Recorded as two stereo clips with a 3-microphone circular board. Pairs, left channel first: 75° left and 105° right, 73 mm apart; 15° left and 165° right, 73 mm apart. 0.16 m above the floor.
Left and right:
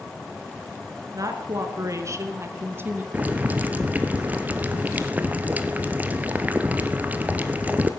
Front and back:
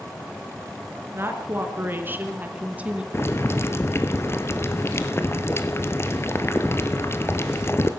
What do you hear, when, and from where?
1.1 s a woman speaking: 120° right, 1.9 m; by 3.0 s 115° right, 1.2 m
3.1 s boiling: 40° right, 0.9 m